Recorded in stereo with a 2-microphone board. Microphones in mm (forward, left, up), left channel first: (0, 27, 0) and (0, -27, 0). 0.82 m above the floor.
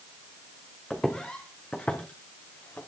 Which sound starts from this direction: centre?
Footsteps, at 0.9 s.